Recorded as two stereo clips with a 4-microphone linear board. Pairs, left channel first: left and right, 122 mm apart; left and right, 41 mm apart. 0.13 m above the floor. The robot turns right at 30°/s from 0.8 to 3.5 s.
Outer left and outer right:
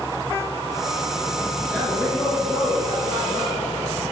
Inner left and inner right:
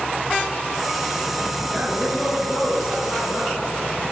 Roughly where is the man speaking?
Ahead.